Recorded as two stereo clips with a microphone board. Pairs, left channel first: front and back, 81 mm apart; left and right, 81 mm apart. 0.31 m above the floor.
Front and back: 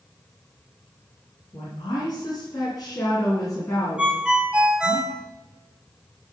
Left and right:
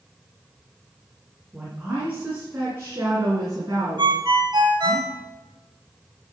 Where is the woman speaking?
10° right, 3 m; by 5.0 s 60° right, 4 m.